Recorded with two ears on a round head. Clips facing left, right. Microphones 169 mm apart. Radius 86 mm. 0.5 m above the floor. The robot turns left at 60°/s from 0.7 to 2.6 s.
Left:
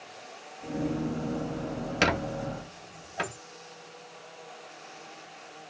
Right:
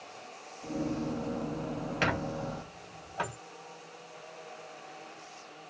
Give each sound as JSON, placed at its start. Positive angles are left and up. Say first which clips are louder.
{"t": 2.0, "sound": "a squeak", "louder": "left 5 dB", "side_deg": 50, "distance_m": 0.7}